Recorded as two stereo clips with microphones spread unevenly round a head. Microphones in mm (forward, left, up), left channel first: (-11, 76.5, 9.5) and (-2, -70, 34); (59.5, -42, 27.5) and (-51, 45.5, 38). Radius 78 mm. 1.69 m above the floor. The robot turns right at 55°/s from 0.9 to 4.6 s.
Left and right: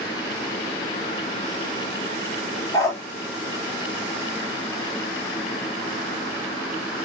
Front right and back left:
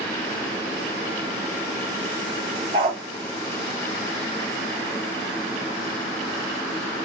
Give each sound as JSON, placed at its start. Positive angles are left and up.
{"t": 2.7, "sound": "a dog barking", "azimuth_deg": 160, "distance_m": 1.4}